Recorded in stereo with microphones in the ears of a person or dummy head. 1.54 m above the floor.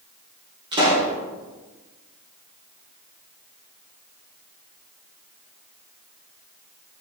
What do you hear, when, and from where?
0.7 s a pop: 20° right (ahead or behind), 1.6 m